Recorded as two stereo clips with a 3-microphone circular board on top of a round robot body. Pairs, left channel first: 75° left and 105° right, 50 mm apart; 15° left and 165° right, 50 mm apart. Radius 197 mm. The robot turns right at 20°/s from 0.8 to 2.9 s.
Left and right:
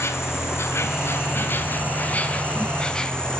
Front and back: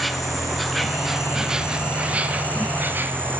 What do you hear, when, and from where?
0.0 s an insect: 105° left, 1.5 m; by 3.4 s 145° left, 1.5 m